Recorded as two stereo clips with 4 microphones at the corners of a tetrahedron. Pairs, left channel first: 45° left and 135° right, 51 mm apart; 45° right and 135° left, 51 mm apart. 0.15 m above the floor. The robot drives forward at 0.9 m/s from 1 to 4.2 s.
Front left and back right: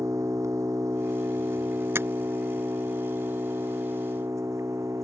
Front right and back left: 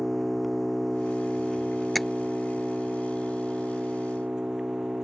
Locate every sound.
0.0 s an engine running: 135° right; by 5.0 s 150° right
1.9 s tapping: 135° right